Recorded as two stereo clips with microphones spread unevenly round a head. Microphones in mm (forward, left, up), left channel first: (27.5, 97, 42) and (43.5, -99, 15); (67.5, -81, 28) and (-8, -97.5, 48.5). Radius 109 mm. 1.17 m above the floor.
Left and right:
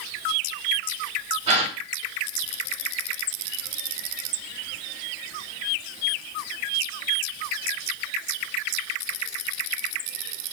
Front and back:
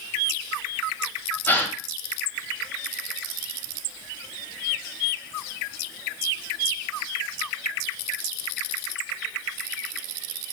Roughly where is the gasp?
Ahead right.